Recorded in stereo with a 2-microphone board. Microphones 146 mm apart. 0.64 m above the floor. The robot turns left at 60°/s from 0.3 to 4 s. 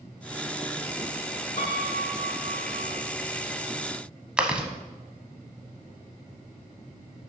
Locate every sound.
1.6 s a piano: 125° left, 1.3 m; by 2.9 s 45° left, 1.3 m
4.4 s chewing: 5° right (ahead or behind), 0.7 m